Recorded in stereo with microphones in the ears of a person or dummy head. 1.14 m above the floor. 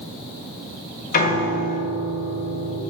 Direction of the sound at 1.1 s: 45° left (ahead or behind).